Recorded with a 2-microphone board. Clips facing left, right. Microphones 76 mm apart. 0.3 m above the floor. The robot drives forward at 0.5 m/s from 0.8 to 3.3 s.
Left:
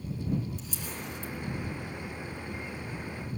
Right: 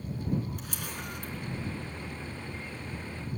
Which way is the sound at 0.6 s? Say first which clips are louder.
Even; 65° right (ahead or behind).